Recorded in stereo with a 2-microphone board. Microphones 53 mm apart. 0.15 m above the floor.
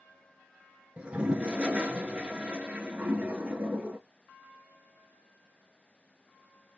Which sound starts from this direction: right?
A toilet flushing, at 1.0 s.